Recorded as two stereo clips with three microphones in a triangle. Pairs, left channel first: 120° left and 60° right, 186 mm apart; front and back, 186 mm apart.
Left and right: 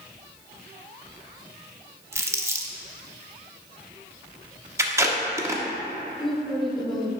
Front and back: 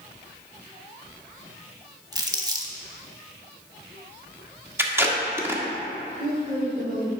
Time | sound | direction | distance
2.1 | crumpling | 125° right | 0.9 m
4.8 | tape being pulled | 120° right | 1.1 m
6.2 | a woman speaking | 150° right | 1.9 m